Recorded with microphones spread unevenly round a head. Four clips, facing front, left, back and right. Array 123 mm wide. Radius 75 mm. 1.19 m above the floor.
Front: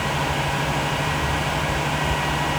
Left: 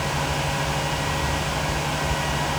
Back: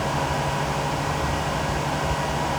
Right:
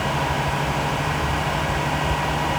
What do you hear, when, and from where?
Only background noise.